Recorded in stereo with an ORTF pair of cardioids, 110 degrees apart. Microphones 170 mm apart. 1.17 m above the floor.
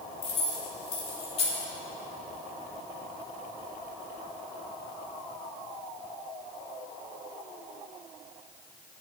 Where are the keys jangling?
35° left, 3 m.